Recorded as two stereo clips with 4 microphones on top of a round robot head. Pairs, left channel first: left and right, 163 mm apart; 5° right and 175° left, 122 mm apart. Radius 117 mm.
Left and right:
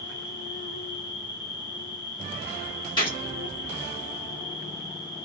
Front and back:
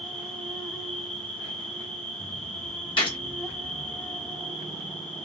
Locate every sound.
0.0 s an insect: 75° left, 1.0 m
3.0 s a gunshot: 30° left, 1.7 m